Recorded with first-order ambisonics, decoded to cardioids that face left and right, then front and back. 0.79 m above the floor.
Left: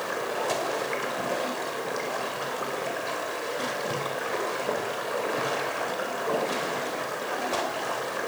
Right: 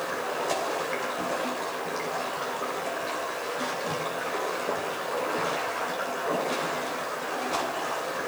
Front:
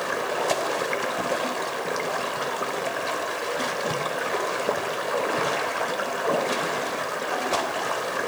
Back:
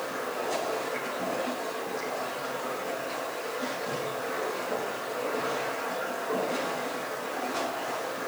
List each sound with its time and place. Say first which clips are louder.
0.0 s running water: left 1 dB, front 6 dB; 5° left, 3 m